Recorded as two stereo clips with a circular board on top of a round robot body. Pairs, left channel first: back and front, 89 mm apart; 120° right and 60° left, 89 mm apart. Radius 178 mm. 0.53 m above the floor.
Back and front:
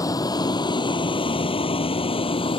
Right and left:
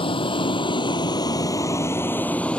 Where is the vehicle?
130° right; by 2.6 s 160° left.